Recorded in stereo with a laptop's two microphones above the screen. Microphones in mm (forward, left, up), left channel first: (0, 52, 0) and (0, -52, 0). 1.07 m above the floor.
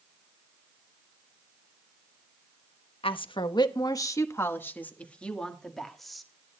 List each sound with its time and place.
3.0 s a woman speaking: 60° left (ahead or behind), 1.0 m; by 6.3 s centre (ahead or behind), 1.9 m